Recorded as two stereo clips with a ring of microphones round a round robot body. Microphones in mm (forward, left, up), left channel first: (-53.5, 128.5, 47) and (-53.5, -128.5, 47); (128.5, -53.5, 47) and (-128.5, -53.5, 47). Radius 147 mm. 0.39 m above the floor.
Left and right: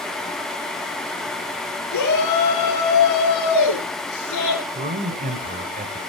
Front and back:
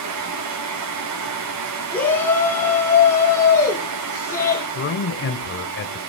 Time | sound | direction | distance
1.9 | a shout | 85° left | 6 m
4.8 | a man speaking | 30° right | 1.7 m